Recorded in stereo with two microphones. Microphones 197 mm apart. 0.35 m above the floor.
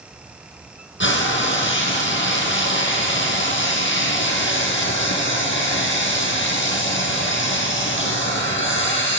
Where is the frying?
75° left (ahead or behind), 4 m.